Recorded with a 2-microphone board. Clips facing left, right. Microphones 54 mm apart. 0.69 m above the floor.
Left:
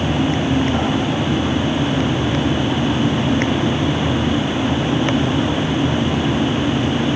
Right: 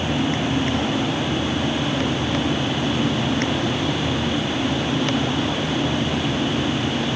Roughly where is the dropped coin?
No dropped coin in this recording.